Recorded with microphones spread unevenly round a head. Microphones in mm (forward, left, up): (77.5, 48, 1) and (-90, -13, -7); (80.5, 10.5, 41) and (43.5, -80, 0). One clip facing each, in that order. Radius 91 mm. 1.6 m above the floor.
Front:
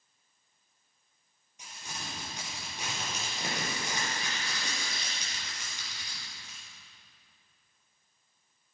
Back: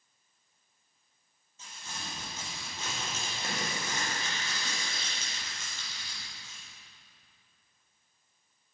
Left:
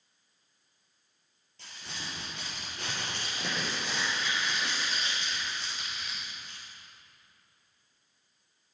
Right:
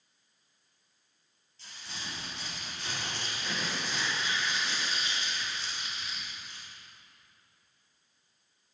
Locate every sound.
1.6 s crumpling: 95° left, 5.5 m